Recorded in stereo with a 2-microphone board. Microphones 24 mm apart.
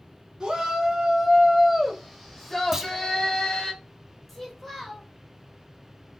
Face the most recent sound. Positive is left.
turn(degrees=5)  # may be behind; listen again after turning